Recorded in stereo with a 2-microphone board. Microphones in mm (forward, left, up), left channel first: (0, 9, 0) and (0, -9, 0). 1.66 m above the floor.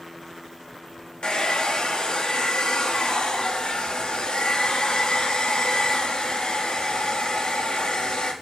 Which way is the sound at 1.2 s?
60° left (ahead or behind).